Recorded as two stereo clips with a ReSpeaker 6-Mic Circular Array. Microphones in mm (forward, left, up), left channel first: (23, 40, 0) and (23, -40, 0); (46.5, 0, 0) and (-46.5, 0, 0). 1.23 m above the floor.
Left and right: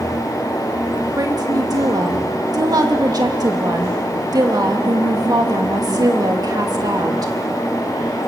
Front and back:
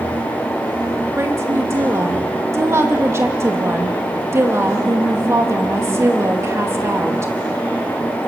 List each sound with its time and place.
1.2 s a woman speaking: 120° right, 2.5 m